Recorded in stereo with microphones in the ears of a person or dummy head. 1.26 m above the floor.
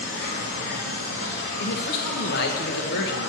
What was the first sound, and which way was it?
An insect, 65° left (ahead or behind).